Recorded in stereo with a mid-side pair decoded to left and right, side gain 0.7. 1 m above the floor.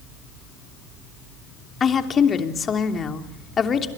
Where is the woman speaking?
30° left, 3 m.